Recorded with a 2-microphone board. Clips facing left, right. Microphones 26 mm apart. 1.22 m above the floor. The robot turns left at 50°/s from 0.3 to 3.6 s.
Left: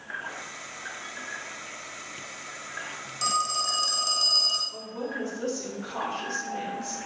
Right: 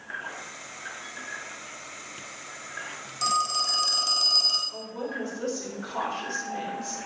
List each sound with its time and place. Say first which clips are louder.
3.2 s a phone ringing: right 1 dB; centre (ahead or behind), 0.8 m; by 4.6 s 15° right (ahead or behind), 0.8 m
4.7 s a woman speaking: even; centre (ahead or behind), 1.9 m